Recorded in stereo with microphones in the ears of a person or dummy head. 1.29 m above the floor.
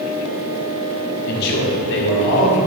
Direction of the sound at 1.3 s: 50° left (ahead or behind).